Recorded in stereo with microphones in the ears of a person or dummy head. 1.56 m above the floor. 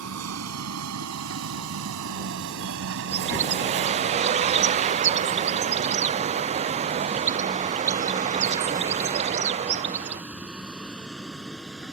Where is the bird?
35° right (ahead or behind).